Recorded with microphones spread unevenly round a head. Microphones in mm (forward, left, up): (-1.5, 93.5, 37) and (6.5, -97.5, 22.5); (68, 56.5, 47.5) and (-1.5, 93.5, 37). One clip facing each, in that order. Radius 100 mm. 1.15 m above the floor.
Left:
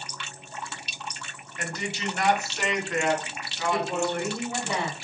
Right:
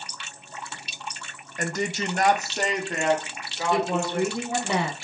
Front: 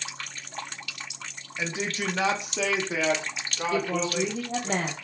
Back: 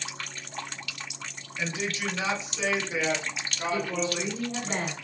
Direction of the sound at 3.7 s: 65° right.